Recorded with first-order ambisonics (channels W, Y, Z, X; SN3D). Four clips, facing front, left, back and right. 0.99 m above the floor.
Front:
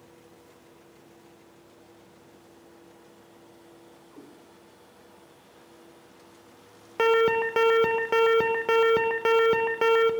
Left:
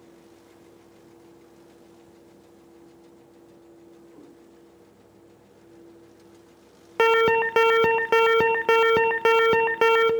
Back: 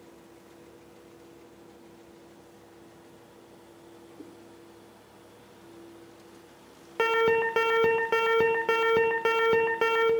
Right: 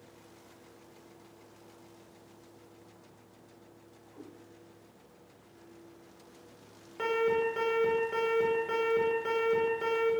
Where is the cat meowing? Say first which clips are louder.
Right 2 dB, back 1 dB; 5° left, 5 m.